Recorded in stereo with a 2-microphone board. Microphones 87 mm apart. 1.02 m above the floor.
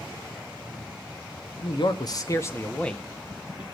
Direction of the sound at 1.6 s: 60° left (ahead or behind).